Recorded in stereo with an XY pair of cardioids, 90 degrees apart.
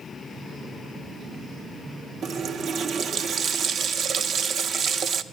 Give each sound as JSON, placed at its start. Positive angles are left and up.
{"t": 2.2, "sound": "a running tap", "azimuth_deg": -70, "distance_m": 0.7}